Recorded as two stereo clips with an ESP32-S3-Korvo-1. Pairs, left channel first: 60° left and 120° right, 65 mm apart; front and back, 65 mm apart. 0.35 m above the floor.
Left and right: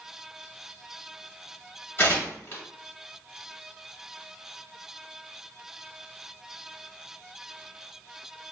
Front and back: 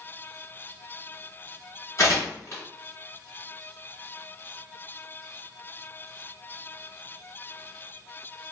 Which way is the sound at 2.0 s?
15° left.